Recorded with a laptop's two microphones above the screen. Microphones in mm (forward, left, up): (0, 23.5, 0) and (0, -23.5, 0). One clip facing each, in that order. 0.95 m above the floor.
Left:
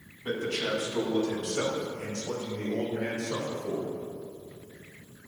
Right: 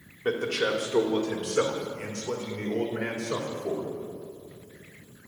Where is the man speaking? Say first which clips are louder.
Right 4 dB; 75° right (ahead or behind), 2 m; by 3.9 s 70° right (ahead or behind), 3.5 m.